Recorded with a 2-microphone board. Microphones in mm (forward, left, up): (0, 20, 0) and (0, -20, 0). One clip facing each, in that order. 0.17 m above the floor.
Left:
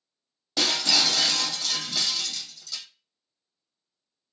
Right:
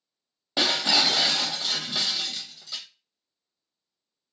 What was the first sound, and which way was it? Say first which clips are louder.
Breaking glass: right 1 dB; 25° right (ahead or behind).